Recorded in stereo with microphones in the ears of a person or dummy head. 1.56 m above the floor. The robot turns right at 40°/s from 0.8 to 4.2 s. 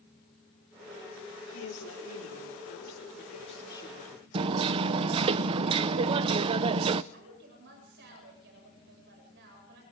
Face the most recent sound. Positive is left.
turn(degrees=-60)  # may be behind; listen again after turning